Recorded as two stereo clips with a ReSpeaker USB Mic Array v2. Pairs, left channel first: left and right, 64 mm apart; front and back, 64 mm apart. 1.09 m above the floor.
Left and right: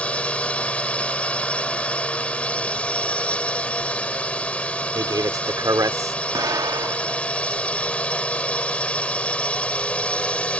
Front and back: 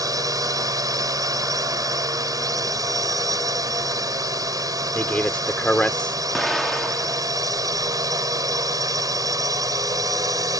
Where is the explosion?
90° right.